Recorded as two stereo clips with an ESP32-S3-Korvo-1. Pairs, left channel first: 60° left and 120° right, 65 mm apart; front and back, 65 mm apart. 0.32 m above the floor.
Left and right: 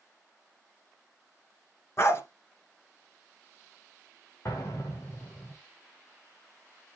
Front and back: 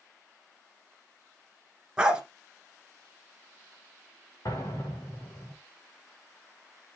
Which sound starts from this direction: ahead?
An explosion, at 4.5 s.